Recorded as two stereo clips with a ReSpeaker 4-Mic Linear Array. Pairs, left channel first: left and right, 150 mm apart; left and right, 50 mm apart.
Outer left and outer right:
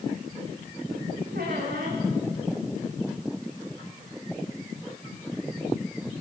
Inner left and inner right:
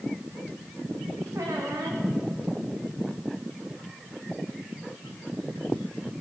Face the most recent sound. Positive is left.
turn(degrees=-85)